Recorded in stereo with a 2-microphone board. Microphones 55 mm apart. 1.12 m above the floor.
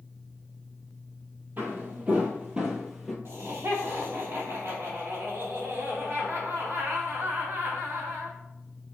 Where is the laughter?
50° right (ahead or behind), 1.9 m.